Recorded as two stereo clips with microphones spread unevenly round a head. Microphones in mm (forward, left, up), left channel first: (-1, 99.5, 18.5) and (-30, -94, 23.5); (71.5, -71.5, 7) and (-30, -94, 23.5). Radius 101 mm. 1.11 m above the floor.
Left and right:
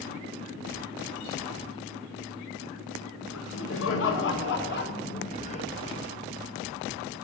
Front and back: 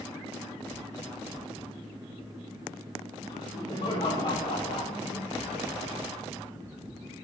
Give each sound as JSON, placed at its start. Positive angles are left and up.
{"t": 3.3, "sound": "laughter", "azimuth_deg": 70, "distance_m": 1.8}